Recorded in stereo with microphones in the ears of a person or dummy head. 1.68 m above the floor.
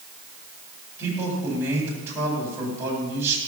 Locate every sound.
1.0 s a man speaking: 15° right (ahead or behind), 8 m